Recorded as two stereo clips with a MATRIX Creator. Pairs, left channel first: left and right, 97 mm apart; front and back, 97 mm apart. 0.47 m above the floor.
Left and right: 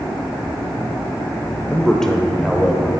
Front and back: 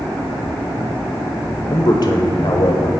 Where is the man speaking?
15° left, 1.2 m; by 2.9 s 5° right, 1.6 m.